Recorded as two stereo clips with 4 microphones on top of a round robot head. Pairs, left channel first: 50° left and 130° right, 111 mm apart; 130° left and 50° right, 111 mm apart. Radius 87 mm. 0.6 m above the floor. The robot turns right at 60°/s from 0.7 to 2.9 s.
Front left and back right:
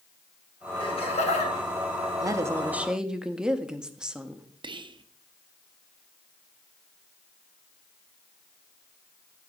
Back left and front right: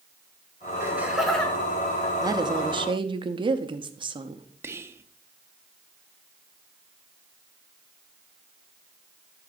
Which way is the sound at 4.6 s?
110° right.